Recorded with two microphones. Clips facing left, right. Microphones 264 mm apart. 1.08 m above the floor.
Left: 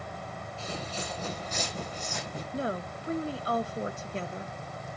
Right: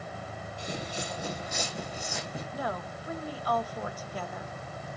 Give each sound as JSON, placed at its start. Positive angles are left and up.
{"t": 0.6, "sound": "footsteps", "side_deg": -15, "distance_m": 2.0}
{"t": 2.5, "sound": "a woman speaking", "side_deg": 25, "distance_m": 0.7}